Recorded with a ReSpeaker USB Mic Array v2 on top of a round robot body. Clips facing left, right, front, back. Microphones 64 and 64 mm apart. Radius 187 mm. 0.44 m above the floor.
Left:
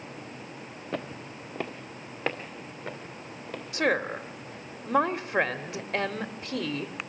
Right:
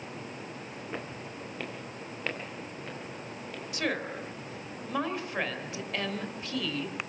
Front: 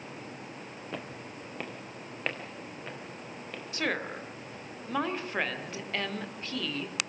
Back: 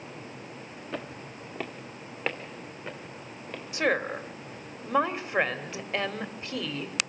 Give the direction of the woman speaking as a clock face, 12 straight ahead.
8 o'clock.